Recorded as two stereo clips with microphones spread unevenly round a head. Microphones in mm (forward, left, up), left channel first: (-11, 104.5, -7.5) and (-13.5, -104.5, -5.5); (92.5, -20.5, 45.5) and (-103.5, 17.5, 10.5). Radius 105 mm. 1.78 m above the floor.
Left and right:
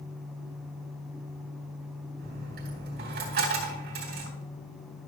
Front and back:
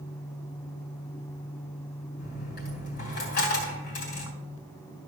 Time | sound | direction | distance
2.2 | a dropped coin | 45° right | 3 m